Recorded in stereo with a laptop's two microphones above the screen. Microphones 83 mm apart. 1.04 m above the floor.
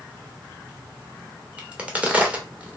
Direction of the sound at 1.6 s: 15° right (ahead or behind).